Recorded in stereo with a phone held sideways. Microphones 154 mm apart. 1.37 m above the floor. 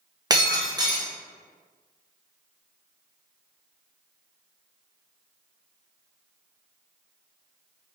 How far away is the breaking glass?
About 0.8 m.